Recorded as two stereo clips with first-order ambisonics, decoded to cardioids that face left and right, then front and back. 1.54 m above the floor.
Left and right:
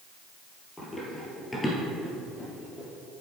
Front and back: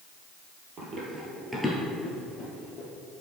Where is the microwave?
I don't hear a microwave.